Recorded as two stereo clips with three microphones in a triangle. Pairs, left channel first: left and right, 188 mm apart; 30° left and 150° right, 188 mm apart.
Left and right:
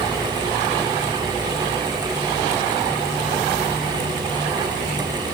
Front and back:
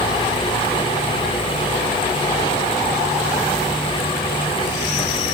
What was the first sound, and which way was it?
Only background noise.